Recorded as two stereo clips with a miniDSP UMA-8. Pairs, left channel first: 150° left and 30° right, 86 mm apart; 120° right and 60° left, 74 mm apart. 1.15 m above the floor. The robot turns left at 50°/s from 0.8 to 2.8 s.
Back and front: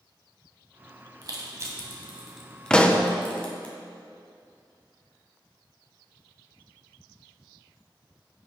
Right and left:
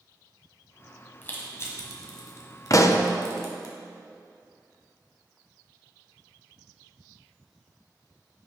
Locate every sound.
1.2 s crushing: 55° right, 1.7 m; by 3.7 s 135° right, 1.7 m
2.7 s a pop: 130° right, 0.6 m; by 3.1 s 135° right, 0.6 m